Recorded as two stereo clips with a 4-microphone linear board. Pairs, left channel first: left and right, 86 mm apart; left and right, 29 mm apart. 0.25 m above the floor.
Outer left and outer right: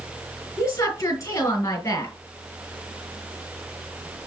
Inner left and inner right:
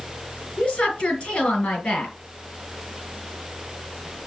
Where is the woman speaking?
35° left (ahead or behind), 4.5 m.